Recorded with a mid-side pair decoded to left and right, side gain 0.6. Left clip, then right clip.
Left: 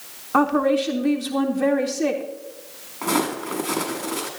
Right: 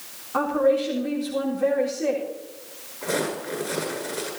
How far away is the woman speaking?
About 3.5 m.